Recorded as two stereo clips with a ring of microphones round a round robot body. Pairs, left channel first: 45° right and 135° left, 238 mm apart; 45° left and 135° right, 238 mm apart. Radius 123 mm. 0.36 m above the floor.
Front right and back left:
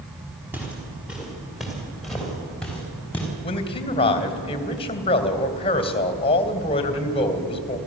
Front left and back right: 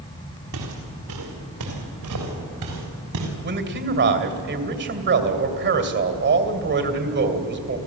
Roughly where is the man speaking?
Right.